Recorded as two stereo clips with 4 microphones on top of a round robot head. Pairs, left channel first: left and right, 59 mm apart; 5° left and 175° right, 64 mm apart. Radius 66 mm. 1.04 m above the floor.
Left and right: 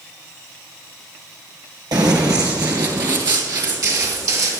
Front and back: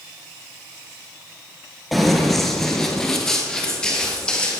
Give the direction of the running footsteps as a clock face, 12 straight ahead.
3 o'clock.